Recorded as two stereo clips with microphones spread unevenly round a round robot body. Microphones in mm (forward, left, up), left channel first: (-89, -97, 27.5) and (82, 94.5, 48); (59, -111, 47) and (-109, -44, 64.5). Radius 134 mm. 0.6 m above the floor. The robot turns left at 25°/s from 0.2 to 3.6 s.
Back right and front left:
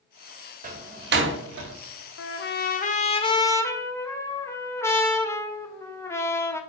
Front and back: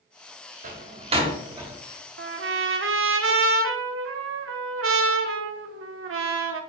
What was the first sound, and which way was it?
A door slam, 110° left.